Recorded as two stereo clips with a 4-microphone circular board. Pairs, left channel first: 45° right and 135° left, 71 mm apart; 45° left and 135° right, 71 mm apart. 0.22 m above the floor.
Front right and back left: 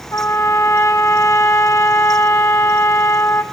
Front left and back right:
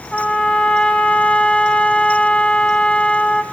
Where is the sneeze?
I don't hear a sneeze.